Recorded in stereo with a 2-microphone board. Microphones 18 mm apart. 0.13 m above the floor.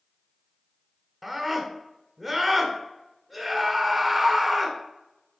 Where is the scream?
25° right (ahead or behind), 1.1 m.